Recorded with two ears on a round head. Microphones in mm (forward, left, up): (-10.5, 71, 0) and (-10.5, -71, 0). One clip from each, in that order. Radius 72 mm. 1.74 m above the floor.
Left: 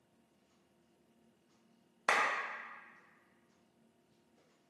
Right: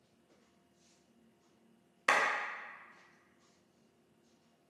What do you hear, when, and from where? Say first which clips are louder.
2.1 s a clap: right 2 dB; 10° right (ahead or behind), 0.6 m